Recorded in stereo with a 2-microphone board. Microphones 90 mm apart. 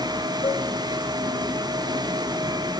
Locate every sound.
0.4 s a cowbell: 70° left (ahead or behind), 4.5 m